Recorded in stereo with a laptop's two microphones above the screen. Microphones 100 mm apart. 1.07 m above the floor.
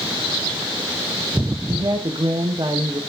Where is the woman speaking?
50° right (ahead or behind), 0.8 m.